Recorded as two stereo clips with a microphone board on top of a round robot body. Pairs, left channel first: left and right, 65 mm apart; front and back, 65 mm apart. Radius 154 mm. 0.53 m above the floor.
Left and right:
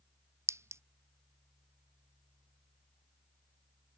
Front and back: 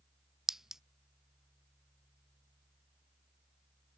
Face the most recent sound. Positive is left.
turn(degrees=-100)